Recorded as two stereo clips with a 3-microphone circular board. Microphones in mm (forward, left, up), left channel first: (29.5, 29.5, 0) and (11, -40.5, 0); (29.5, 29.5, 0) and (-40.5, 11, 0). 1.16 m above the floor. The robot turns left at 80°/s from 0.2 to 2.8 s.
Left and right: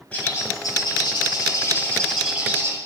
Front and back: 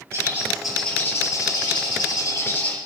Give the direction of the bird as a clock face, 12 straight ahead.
7 o'clock.